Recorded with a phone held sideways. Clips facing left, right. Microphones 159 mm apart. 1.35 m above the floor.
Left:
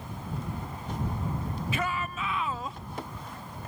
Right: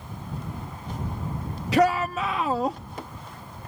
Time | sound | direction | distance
1.7 | a shout | 85° right | ?